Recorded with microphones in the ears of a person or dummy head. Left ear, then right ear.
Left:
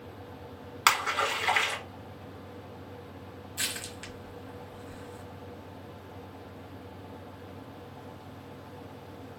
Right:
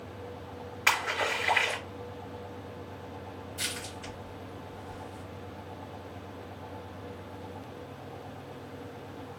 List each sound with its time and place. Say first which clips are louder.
0.9 s a splash: left 2 dB; 60° left (ahead or behind), 2 m
3.6 s crushing: left 2 dB; 55° left (ahead or behind), 1.7 m